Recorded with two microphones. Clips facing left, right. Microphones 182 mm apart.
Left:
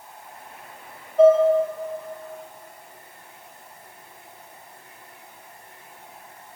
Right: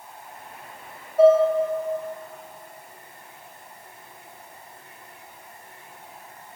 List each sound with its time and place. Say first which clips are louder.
1.2 s dishes clattering: left 1 dB; 5° right (ahead or behind), 1.9 m